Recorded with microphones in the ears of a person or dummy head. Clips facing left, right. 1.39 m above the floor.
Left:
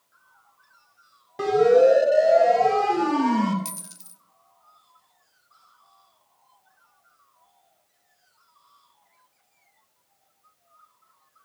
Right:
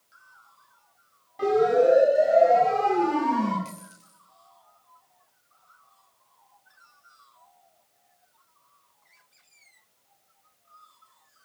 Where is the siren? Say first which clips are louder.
Left 4 dB; 70° left (ahead or behind), 5 m; by 3.5 s 85° left, 5 m.